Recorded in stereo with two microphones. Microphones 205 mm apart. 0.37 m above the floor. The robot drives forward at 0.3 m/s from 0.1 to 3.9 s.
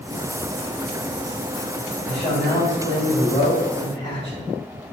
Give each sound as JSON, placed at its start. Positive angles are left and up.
{"t": 2.1, "sound": "a man speaking", "side_deg": 45, "distance_m": 1.8}